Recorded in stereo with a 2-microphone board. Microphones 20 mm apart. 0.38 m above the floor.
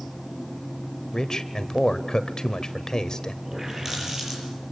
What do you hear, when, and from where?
1.1 s a man speaking: 35° left (ahead or behind), 1.4 m
3.5 s a running tap: 20° right (ahead or behind), 7.5 m